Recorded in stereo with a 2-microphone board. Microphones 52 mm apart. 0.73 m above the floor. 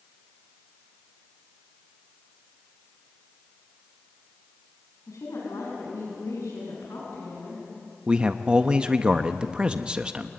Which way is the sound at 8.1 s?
20° right (ahead or behind).